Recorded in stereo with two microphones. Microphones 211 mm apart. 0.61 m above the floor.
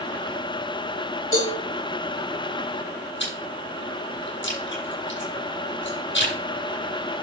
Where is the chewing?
60° left (ahead or behind), 7 m.